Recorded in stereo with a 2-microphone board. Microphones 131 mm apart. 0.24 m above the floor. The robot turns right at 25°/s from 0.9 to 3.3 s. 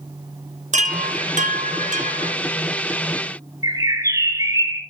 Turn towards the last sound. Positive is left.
turn(degrees=-25)  # may be behind; listen again after turning